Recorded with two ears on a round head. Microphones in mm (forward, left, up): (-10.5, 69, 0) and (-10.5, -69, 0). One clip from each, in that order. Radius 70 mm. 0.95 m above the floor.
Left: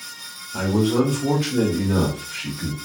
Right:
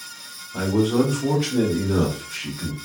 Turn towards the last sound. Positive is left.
turn(degrees=-15)  # may be behind; listen again after turning